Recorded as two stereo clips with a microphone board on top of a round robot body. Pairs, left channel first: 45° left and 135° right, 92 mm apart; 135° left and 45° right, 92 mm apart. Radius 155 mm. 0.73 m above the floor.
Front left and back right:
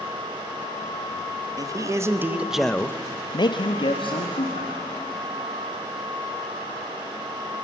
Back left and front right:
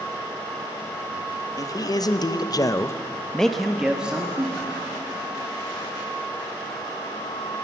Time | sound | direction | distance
1.6 | a man speaking | straight behind | 1.9 m